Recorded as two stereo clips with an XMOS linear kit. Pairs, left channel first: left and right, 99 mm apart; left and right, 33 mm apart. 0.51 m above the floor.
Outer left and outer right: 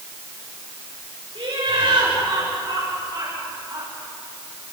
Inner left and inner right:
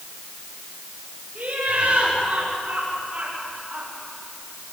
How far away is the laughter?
About 8 m.